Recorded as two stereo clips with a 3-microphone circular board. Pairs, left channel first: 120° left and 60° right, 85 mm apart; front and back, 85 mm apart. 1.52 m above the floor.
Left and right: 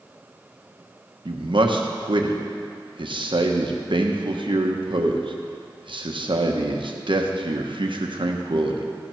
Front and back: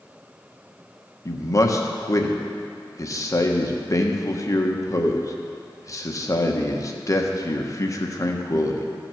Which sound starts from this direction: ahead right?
A man speaking, at 1.2 s.